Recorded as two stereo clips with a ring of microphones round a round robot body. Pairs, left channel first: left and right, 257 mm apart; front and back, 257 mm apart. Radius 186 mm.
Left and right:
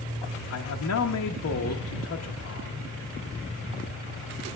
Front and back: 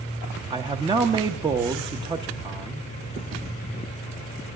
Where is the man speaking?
105° left, 0.8 m.